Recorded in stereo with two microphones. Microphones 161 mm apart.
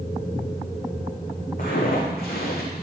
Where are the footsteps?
55° left (ahead or behind), 1.8 m; by 2.8 s 75° left (ahead or behind), 1.9 m.